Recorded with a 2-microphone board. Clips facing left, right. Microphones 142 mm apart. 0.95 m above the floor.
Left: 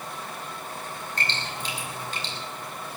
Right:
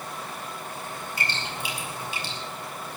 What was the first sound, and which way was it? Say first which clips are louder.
Dripping: even; 10° right (ahead or behind).